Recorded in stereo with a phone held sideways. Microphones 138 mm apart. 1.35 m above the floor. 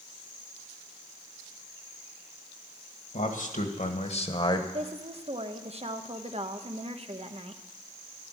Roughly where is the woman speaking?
Right.